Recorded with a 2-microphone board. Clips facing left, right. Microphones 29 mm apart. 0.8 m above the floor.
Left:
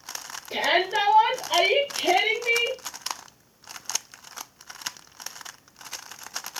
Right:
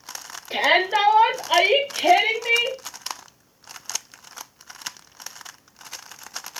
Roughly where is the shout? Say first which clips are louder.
Right 4 dB; right.